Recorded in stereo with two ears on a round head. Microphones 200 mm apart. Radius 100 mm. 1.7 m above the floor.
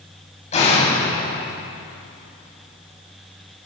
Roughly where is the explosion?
Left.